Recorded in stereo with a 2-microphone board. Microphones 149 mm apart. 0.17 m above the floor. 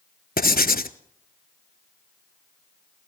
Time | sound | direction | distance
0.4 | writing | 80° left | 0.7 m